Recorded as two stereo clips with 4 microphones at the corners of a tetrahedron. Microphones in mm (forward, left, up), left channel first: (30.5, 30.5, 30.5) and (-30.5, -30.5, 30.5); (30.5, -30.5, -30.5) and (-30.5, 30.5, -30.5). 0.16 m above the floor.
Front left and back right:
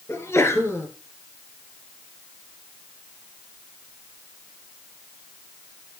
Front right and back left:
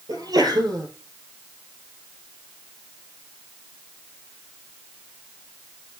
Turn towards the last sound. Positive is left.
turn(degrees=100)